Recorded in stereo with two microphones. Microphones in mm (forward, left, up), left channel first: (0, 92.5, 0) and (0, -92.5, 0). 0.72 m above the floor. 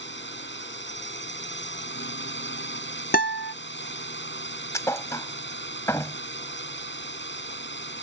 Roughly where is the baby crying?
No baby crying in this recording.